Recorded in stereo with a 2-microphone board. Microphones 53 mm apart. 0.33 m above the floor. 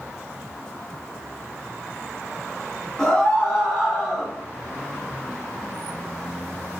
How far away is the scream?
About 1.1 m.